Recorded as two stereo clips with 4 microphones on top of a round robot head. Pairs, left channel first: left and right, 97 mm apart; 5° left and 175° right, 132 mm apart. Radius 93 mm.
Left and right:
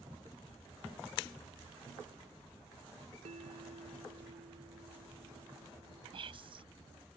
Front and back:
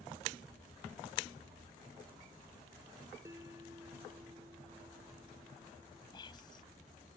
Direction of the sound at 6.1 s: 60° right.